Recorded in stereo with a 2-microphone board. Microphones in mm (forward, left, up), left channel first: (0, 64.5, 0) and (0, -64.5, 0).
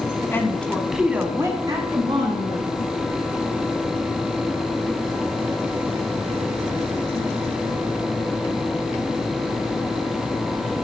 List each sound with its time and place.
0.3 s a woman speaking: 15° left (ahead or behind), 1.2 m; by 2.7 s 40° right (ahead or behind), 1.8 m